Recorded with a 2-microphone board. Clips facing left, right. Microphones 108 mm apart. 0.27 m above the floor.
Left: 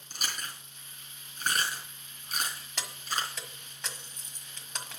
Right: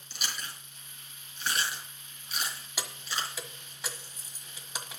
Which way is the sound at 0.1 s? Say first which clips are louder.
Left 1 dB; 45° left (ahead or behind).